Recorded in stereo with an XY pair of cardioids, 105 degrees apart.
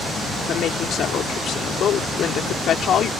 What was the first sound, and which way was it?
A woman speaking, 60° left.